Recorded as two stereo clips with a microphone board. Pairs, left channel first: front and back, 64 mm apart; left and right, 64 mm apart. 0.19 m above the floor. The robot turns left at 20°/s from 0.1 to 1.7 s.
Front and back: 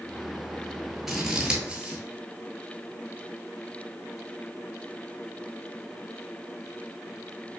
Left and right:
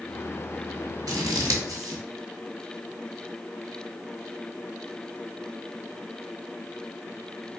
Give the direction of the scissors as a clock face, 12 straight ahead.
3 o'clock.